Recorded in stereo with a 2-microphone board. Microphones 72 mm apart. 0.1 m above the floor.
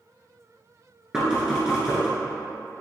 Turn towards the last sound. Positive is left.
turn(degrees=-10)  # may be behind; listen again after turning